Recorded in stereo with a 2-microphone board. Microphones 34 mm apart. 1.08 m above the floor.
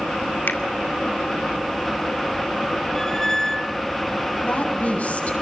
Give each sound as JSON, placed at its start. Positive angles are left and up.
{"t": 0.5, "sound": "a finger snap", "side_deg": 85, "distance_m": 2.0}
{"t": 3.0, "sound": "a squeak", "side_deg": 15, "distance_m": 1.1}
{"t": 4.4, "sound": "a woman speaking", "side_deg": 45, "distance_m": 7.5}